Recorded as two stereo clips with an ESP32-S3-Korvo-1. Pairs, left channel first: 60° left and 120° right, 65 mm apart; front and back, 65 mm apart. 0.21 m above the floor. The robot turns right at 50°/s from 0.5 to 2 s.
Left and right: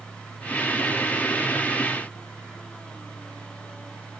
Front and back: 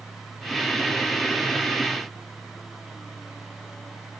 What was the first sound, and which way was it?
Only background noise.